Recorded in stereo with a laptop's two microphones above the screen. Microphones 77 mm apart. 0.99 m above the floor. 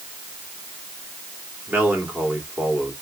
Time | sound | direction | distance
1.7 | a man speaking | 25° right (ahead or behind) | 3 m